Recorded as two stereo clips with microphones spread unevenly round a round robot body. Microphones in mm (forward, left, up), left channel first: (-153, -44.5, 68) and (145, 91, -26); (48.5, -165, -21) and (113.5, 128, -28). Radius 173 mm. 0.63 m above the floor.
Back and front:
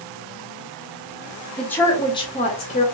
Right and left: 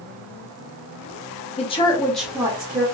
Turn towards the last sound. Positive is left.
turn(degrees=125)